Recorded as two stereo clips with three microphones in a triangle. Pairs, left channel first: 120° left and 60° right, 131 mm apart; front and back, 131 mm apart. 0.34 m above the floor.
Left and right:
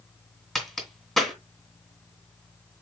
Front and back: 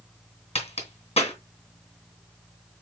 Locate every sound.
0.6 s a crack: 35° left, 2 m